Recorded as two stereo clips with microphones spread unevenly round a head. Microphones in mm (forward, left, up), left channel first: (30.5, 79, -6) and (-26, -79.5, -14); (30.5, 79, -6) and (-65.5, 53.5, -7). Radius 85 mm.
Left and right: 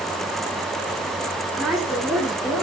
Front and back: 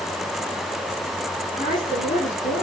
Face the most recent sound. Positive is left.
turn(degrees=-25)